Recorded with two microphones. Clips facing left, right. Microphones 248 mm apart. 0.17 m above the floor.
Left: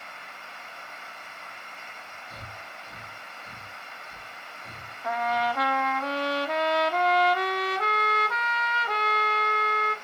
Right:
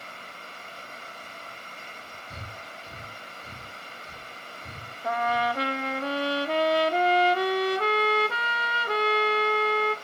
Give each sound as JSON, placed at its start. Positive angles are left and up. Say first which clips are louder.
{"t": 2.3, "sound": "breathing", "louder": "right 2 dB", "side_deg": -30, "distance_m": 2.5}
{"t": 5.0, "sound": "a trumpet", "louder": "right 1 dB", "side_deg": -30, "distance_m": 1.1}